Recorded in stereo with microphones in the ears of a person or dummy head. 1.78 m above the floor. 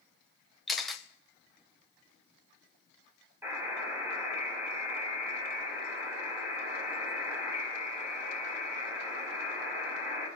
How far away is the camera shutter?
About 0.8 m.